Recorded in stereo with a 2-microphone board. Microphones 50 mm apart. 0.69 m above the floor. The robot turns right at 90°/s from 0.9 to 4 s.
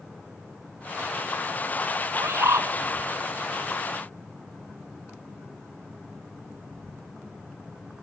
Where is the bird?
120° right, 2 m; by 2.7 s 70° right, 2 m.